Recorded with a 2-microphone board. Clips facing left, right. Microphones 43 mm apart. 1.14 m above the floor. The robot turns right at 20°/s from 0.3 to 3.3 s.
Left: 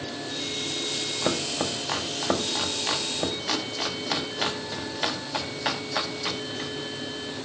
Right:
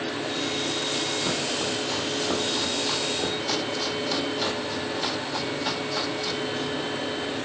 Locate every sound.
1.2 s chopping: 80° left, 1.3 m; by 6.7 s 45° left (ahead or behind), 1.3 m